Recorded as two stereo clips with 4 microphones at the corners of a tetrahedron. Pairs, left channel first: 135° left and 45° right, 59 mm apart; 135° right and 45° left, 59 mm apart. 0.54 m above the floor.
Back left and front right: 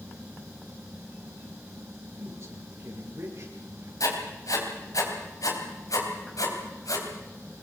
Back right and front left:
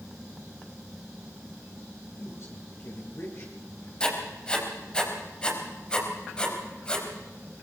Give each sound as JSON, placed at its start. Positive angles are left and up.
{"t": 2.2, "sound": "a woman speaking", "azimuth_deg": -90, "distance_m": 8.0}
{"t": 4.0, "sound": "writing", "azimuth_deg": 150, "distance_m": 4.0}